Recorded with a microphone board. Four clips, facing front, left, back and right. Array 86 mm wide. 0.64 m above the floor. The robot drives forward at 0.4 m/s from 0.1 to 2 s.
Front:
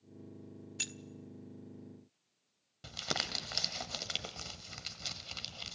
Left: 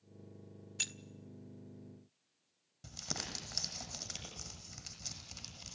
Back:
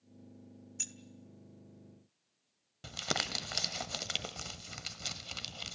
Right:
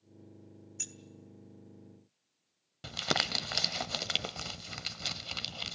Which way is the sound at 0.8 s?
55° left.